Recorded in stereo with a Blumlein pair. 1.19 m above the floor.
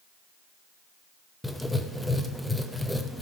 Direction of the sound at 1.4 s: 5° left.